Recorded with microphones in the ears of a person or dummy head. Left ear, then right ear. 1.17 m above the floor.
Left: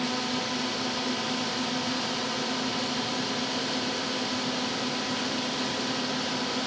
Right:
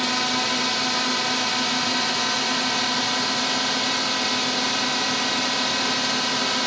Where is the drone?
50° right (ahead or behind).